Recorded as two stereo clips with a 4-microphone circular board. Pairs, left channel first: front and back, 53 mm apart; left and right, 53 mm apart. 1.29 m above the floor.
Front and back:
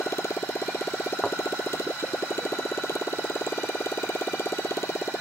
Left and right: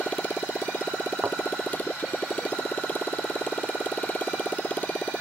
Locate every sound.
0.0 s a motorcycle: 30° left
1.2 s a thud: 75° right